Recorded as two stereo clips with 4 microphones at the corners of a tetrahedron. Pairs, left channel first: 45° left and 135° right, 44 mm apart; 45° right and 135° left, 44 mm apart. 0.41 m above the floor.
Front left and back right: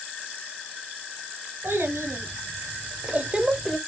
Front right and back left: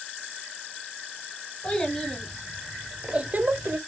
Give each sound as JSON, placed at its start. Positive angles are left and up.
{"t": 1.6, "sound": "a child speaking", "azimuth_deg": -115, "distance_m": 1.5}